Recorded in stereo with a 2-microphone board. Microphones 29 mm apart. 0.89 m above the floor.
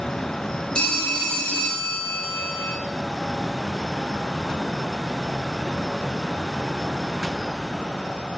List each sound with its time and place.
0.8 s a phone ringing: 40° left (ahead or behind), 0.7 m